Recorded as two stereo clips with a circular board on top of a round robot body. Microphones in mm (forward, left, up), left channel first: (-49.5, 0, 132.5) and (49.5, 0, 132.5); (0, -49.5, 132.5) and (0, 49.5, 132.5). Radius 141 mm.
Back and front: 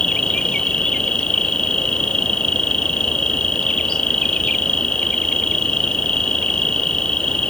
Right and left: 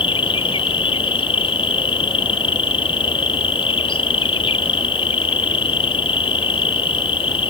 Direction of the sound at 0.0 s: 100° right.